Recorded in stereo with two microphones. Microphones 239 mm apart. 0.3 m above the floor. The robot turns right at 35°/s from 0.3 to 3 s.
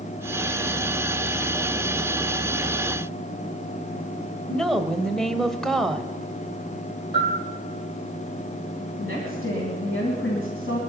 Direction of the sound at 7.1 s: 45° left (ahead or behind).